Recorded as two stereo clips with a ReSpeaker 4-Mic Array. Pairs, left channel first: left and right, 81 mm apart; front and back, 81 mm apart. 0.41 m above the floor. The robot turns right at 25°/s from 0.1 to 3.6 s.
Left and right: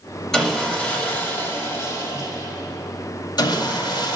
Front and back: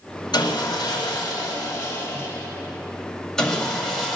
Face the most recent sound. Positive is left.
turn(degrees=90)